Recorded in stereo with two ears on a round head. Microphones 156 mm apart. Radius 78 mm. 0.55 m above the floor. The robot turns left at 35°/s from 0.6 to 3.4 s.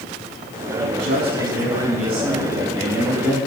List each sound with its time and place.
0.8 s a man speaking: 100° right, 5.5 m; by 3.4 s 170° left, 5.5 m